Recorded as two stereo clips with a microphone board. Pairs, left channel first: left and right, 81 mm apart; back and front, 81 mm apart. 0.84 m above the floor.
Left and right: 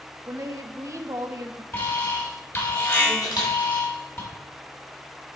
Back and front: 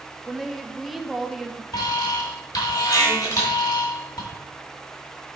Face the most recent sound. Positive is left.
turn(degrees=125)